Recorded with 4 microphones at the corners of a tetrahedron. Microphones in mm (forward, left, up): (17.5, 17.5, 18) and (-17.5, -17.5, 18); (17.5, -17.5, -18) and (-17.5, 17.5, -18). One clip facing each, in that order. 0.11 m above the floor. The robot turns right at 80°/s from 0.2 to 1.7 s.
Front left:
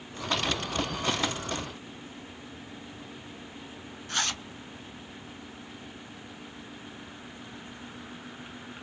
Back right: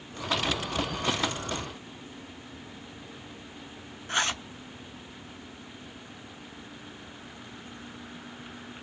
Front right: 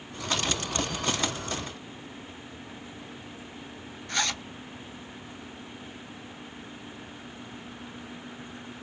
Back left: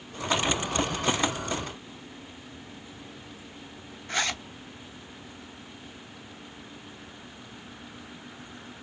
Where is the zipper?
175° right, 0.5 m.